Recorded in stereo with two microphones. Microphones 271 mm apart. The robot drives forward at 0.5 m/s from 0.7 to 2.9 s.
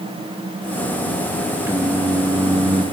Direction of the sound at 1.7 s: 10° right (ahead or behind).